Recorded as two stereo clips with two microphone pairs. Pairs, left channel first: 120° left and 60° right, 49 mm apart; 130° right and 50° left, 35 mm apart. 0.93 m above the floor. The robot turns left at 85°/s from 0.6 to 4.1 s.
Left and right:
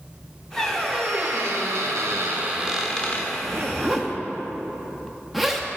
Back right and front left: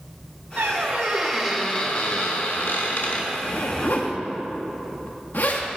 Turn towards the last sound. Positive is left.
turn(degrees=-150)